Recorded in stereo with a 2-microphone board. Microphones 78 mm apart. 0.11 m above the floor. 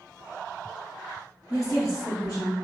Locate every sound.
1.5 s a woman speaking: 50° left (ahead or behind), 1.7 m; by 2.5 s 55° left (ahead or behind), 2 m